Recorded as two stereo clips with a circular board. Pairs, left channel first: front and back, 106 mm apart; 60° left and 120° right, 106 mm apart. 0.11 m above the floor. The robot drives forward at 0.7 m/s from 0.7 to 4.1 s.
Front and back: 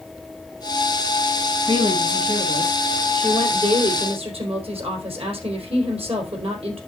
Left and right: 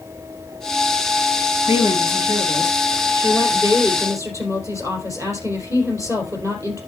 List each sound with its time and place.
1.7 s a woman speaking: 170° right, 2 m; by 6.8 s 175° right, 3.5 m